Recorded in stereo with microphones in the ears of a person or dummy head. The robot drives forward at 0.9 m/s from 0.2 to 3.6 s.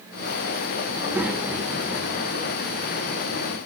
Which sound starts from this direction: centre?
A child speaking, at 0.9 s.